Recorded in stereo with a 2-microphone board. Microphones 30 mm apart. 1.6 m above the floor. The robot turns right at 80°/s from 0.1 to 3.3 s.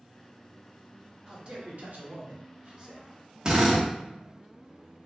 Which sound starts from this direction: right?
A drill, at 3.5 s.